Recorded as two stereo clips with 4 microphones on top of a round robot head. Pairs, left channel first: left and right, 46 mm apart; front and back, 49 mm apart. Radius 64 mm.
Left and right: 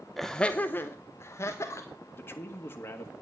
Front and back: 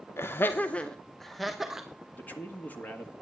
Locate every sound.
0.2 s laughter: 5° left, 0.7 m; by 1.9 s 100° left, 1.5 m
2.1 s a man speaking: 55° left, 1.7 m